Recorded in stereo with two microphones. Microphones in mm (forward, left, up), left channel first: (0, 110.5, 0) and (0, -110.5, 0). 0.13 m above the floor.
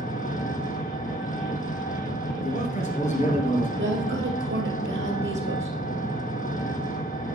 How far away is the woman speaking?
About 2.5 m.